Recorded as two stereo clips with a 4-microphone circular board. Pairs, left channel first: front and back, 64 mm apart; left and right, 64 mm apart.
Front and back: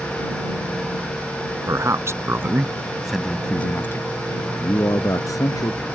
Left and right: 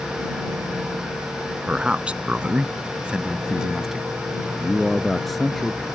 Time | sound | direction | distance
1.7 | a man speaking | 160° right | ?